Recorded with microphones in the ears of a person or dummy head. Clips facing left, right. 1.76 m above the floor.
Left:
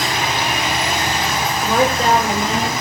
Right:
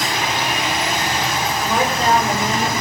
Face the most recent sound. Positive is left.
turn(degrees=25)  # may be behind; listen again after turning